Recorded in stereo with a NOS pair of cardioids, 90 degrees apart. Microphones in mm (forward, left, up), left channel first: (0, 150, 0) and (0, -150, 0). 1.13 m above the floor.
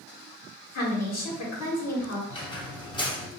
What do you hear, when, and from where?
0.8 s a woman speaking: 60° left, 1.7 m
2.3 s a squeak: 15° left, 0.9 m